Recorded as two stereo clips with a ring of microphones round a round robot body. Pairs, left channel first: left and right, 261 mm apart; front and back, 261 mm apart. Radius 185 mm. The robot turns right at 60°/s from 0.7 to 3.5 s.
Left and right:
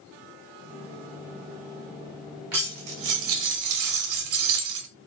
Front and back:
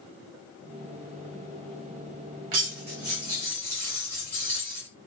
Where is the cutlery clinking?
145° right, 0.5 m; by 4.9 s 85° right, 0.5 m.